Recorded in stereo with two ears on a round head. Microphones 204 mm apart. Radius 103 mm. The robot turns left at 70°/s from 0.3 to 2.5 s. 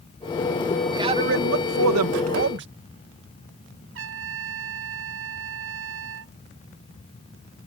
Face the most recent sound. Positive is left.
turn(degrees=-65)  # may be behind; listen again after turning